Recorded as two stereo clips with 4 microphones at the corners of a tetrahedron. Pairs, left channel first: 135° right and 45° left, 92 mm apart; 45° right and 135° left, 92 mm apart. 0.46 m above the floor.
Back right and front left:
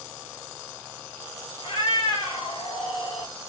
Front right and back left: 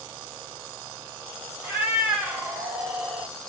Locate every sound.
1.6 s a cat meowing: 150° right, 1.8 m; by 3.3 s 130° right, 1.1 m